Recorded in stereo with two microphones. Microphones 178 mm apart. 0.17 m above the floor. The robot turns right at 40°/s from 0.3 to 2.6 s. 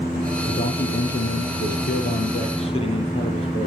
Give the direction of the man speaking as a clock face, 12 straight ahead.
10 o'clock.